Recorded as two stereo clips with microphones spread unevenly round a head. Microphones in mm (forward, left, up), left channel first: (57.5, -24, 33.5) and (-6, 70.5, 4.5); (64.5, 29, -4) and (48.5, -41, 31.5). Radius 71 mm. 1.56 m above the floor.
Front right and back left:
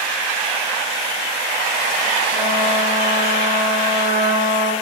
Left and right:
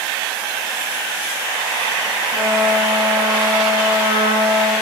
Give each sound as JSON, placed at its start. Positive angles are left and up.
{"t": 2.3, "sound": "a trumpet", "azimuth_deg": -165, "distance_m": 6.0}